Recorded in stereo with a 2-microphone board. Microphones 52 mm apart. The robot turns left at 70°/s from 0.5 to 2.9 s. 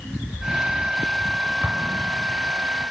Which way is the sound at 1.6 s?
50° right (ahead or behind).